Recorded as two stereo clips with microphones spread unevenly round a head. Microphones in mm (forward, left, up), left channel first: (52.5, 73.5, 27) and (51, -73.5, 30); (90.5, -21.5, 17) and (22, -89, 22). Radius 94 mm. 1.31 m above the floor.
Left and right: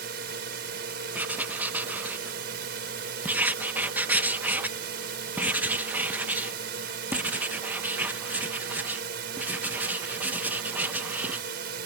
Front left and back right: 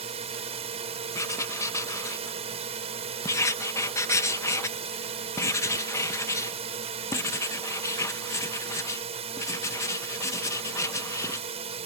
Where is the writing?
15° right.